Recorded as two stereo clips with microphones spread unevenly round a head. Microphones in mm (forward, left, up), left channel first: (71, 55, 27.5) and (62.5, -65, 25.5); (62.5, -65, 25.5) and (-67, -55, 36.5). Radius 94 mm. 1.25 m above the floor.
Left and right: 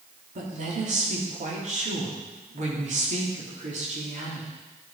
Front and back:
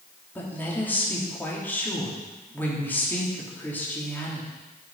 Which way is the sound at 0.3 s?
80° right.